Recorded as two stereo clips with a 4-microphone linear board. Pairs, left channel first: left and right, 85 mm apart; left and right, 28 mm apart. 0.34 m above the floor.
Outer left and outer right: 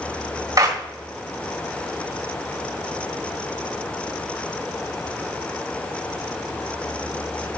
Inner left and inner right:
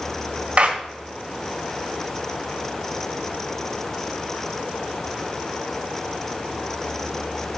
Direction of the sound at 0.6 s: 45° right (ahead or behind).